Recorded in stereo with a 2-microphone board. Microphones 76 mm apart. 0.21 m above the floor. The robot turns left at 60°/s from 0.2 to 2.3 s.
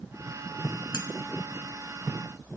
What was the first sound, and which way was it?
Cutlery clinking, 55° left (ahead or behind).